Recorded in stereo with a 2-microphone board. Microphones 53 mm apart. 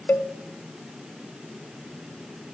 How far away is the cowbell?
About 0.5 m.